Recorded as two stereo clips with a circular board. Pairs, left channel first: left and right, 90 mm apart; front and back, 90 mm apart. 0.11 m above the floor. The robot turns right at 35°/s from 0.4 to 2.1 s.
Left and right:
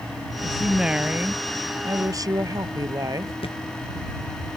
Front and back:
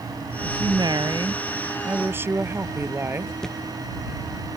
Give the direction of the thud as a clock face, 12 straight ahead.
9 o'clock.